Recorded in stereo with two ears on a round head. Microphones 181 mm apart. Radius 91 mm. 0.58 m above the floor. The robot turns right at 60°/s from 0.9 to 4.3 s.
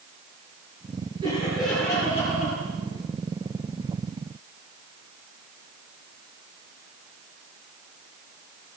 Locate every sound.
1.2 s laughter: 25° right, 9 m; by 2.6 s 60° left, 9 m